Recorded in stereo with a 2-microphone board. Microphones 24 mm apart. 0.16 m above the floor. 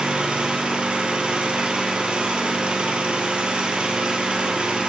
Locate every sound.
0.0 s an engine running: 55° right (ahead or behind), 2 m